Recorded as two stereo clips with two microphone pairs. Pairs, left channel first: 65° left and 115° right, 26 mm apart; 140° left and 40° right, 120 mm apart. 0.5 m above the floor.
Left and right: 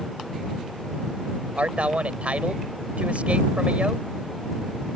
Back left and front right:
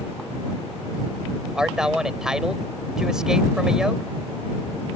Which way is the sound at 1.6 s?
125° right.